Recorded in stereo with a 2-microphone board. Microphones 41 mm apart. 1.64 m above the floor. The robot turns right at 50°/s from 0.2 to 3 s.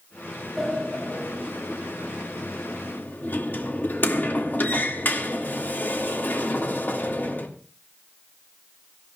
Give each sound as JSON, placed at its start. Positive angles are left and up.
{"t": 0.6, "sound": "a sliding door", "side_deg": 5, "distance_m": 2.5}